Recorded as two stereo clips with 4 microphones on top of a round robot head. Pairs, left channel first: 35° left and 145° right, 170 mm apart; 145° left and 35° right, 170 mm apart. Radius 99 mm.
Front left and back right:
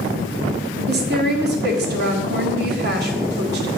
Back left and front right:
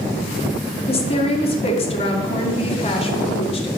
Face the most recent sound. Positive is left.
turn(degrees=-160)